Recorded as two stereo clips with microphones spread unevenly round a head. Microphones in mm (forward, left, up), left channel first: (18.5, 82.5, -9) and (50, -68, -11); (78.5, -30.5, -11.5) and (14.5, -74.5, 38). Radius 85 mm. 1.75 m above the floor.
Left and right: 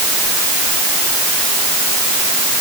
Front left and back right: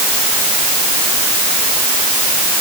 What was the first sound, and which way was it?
Only background noise.